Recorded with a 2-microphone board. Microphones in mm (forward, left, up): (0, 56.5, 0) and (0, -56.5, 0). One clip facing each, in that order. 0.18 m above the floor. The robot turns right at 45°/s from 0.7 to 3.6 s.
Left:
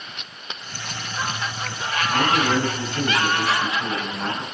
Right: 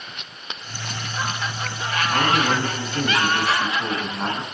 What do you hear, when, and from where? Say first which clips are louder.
2.1 s a man speaking: left 1 dB; 165° right, 1.2 m; by 4.4 s 95° right, 1.2 m